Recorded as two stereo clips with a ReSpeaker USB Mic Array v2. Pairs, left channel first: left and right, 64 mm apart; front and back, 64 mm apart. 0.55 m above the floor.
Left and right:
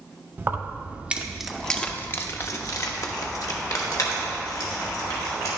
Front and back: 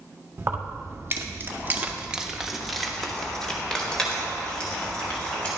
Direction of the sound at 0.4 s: 135° right.